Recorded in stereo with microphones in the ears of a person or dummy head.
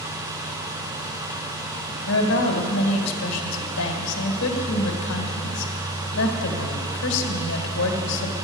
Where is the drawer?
No drawer in this recording.